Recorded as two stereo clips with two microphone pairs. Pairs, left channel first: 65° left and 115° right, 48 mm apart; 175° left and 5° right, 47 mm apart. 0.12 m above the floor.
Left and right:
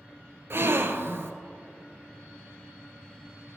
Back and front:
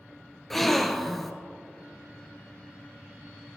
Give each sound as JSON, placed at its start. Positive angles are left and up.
{"t": 0.5, "sound": "a gasp", "azimuth_deg": -95, "distance_m": 0.6}